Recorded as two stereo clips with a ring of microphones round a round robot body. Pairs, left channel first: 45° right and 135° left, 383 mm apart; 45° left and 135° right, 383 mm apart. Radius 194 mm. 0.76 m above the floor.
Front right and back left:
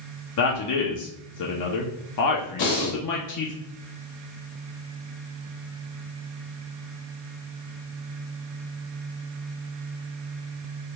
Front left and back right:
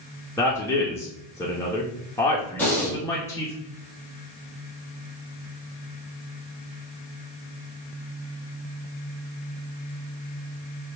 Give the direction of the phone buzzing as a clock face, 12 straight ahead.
I don't hear a phone buzzing.